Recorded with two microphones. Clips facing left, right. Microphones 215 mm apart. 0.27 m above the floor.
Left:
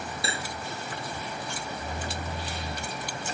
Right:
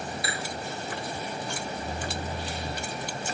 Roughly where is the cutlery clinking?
Left.